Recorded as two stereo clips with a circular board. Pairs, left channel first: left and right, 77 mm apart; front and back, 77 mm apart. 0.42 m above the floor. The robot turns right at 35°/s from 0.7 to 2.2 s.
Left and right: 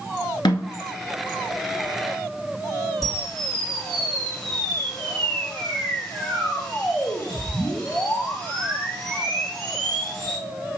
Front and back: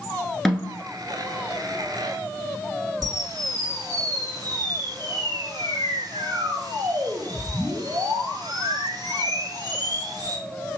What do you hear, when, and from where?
0.5 s a snare drum: 85° left, 1.0 m
3.0 s a camera shutter: 175° left, 2 m